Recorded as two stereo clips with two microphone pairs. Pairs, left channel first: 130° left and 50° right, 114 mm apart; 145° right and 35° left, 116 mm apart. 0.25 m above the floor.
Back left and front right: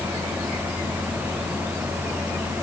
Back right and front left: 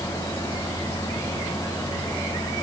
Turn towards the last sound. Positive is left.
No sound to turn to.